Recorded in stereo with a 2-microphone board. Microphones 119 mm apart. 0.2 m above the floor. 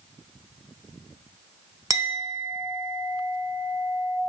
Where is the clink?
30° right (ahead or behind), 0.8 m.